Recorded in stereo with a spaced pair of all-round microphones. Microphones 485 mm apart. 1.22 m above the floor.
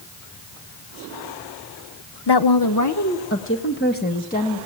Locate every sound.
2.3 s a woman speaking: 55° left (ahead or behind), 0.8 m; by 4.7 s 15° left (ahead or behind), 2 m